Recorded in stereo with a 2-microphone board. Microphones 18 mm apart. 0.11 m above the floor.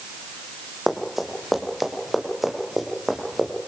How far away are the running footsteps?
About 4 m.